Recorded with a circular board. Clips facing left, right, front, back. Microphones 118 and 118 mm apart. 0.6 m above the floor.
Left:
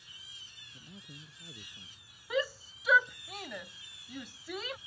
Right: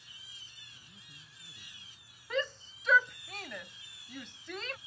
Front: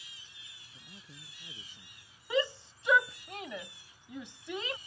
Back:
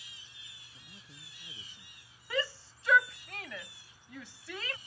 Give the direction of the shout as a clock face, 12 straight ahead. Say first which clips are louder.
Left 2 dB, front 4 dB; 11 o'clock.